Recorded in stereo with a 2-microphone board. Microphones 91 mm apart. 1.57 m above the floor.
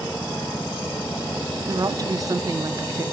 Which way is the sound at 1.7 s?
40° right (ahead or behind).